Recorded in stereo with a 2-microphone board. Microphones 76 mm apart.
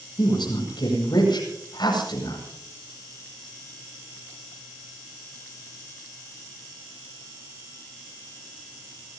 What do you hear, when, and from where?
0.2 s a woman speaking: 70° left (ahead or behind), 8.5 m